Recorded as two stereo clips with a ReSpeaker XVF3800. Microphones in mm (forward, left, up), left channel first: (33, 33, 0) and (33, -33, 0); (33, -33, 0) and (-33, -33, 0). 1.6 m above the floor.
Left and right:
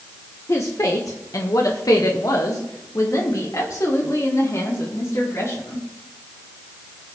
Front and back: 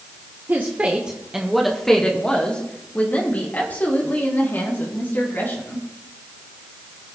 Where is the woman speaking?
125° left, 1.0 m; by 5.9 s 50° left, 3.5 m.